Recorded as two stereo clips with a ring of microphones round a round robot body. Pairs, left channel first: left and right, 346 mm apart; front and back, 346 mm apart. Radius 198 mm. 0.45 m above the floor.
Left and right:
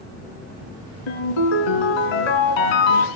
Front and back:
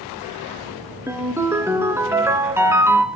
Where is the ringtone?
95° left, 2 m.